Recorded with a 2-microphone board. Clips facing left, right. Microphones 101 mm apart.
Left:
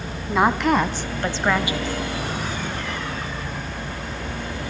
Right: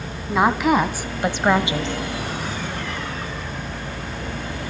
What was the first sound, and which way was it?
A woman speaking, centre (ahead or behind).